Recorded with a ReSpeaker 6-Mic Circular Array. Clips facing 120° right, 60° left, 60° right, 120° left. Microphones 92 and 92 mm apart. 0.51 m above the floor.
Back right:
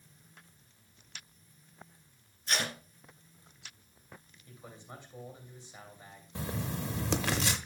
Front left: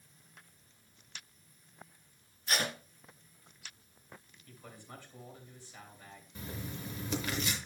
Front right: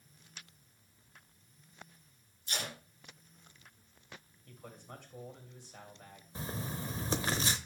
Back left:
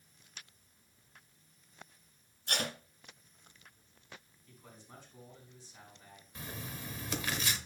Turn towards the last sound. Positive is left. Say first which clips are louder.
# back right 7 dB, front right 5 dB
turn(degrees=-115)